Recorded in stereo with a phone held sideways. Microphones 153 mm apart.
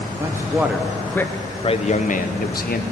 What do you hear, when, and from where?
0.2 s a man speaking: 20° right (ahead or behind), 1.0 m; by 2.8 s 75° left (ahead or behind), 1.0 m